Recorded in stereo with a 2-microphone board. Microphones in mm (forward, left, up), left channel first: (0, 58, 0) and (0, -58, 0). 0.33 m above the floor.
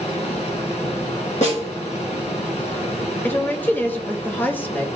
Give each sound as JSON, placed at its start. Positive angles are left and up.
{"t": 0.0, "sound": "running water", "side_deg": 65, "distance_m": 2.0}
{"t": 1.4, "sound": "a snare drum", "side_deg": 75, "distance_m": 3.5}
{"t": 3.2, "sound": "a woman speaking", "side_deg": 15, "distance_m": 1.0}